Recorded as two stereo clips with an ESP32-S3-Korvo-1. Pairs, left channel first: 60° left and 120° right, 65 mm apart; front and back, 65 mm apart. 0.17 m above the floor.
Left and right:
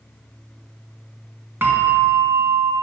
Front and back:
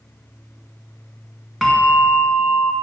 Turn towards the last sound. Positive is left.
turn(degrees=-85)